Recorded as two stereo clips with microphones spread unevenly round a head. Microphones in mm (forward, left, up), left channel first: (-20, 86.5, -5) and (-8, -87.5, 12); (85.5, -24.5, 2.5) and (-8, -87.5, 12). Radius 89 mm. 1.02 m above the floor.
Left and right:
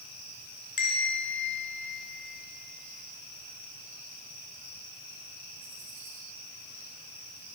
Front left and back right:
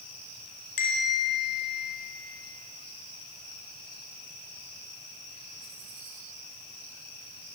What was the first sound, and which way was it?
A bell, 45° left.